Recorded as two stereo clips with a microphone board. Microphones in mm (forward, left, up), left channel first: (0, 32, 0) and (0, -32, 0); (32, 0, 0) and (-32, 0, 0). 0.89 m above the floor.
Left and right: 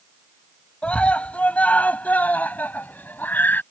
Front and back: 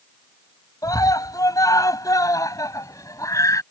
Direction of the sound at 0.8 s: 20° left.